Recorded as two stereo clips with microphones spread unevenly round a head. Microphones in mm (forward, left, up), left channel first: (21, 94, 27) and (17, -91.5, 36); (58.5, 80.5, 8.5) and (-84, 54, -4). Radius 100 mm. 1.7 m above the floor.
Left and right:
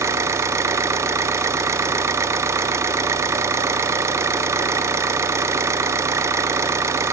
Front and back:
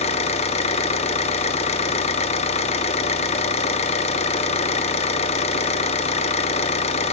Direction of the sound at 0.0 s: 20° right.